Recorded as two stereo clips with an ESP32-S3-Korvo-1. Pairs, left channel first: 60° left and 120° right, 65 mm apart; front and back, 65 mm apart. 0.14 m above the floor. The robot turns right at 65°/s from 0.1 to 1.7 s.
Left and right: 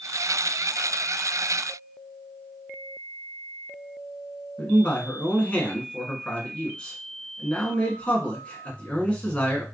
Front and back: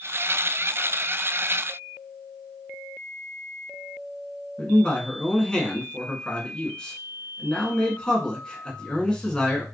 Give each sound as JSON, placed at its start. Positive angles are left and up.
{"t": 4.6, "sound": "a man speaking", "azimuth_deg": 40, "distance_m": 1.2}